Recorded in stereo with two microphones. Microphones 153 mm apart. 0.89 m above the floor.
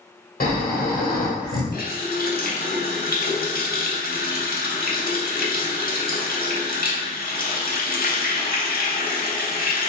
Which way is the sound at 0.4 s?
70° left (ahead or behind).